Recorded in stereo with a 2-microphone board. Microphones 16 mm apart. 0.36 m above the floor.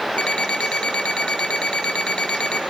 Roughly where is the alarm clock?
Left.